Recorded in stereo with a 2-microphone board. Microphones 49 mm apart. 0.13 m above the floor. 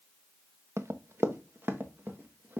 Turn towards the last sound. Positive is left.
turn(degrees=-35)  # may be behind; listen again after turning